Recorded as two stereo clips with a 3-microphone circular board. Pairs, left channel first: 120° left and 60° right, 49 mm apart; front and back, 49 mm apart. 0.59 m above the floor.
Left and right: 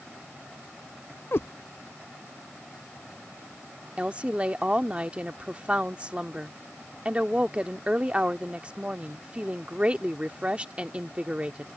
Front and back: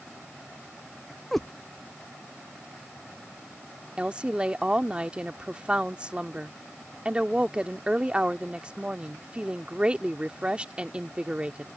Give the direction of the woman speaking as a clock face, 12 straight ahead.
4 o'clock.